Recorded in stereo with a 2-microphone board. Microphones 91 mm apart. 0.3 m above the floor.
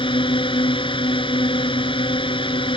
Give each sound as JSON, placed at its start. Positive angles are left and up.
{"t": 0.0, "sound": "a drone", "side_deg": 70}